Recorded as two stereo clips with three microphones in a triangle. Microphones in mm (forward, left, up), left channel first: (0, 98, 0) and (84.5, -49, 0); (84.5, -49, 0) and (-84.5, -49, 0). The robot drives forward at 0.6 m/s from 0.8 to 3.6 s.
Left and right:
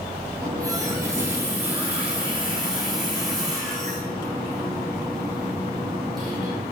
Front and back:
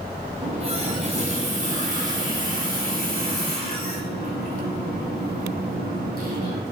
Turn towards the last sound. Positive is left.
turn(degrees=-155)